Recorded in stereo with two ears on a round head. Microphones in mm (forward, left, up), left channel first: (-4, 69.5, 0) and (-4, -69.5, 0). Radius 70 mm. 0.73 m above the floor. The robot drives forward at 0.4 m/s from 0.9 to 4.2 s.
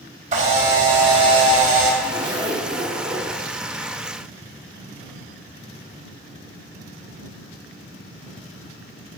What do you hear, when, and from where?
0.3 s a camera shutter: 45° right (ahead or behind), 4 m; by 1.9 s 50° right (ahead or behind), 3.5 m
2.0 s a zipper: 35° right (ahead or behind), 1.5 m; by 3.4 s 25° right (ahead or behind), 1.9 m